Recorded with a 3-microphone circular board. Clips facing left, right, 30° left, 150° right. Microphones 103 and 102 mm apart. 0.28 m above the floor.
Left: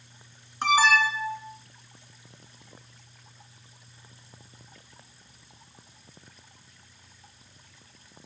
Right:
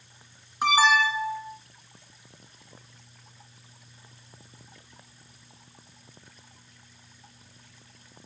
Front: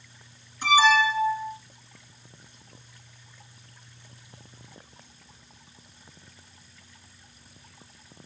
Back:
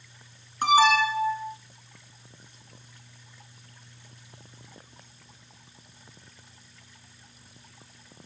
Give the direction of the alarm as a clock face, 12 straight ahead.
6 o'clock.